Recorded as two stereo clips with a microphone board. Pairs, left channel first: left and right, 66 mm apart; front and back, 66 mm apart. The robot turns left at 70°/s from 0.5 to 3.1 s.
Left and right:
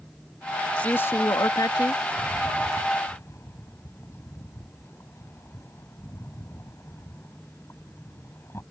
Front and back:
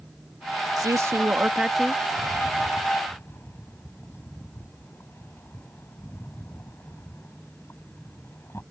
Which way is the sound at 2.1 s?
120° left.